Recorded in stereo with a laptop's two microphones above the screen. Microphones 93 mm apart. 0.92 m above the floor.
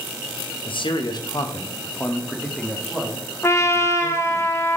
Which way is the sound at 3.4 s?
30° left (ahead or behind).